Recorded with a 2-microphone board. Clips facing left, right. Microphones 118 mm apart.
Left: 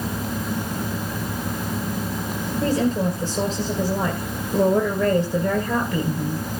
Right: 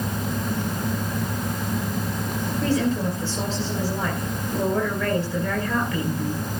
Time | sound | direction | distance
2.6 | a woman speaking | 25° left (ahead or behind) | 2.5 m